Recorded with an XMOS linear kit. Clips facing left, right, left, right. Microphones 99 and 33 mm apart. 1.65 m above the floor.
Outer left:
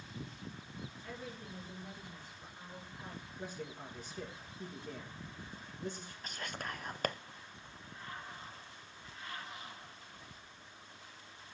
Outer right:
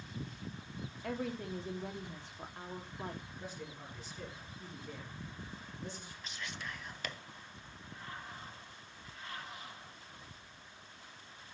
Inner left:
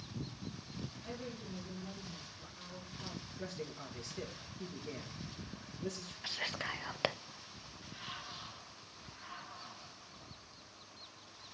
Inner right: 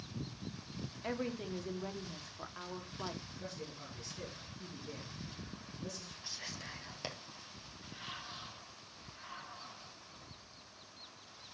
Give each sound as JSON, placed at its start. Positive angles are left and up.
{"t": 1.0, "sound": "a woman speaking", "side_deg": -70, "distance_m": 1.4}
{"t": 3.4, "sound": "a man speaking", "side_deg": 50, "distance_m": 3.0}
{"t": 6.2, "sound": "whispering", "side_deg": 50, "distance_m": 0.6}